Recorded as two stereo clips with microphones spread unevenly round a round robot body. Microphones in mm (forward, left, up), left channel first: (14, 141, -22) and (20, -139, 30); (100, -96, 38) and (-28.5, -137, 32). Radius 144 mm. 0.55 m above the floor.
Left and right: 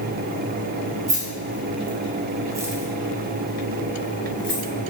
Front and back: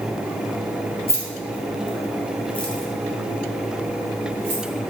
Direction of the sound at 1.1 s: 20° right.